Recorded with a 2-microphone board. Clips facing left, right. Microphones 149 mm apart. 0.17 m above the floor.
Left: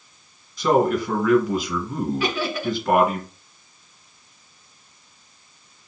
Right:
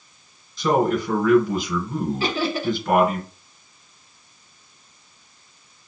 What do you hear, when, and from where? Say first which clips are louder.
0.6 s a man speaking: left 1 dB; 15° left (ahead or behind), 1.5 m
2.2 s laughter: right 1 dB; 30° right (ahead or behind), 1.4 m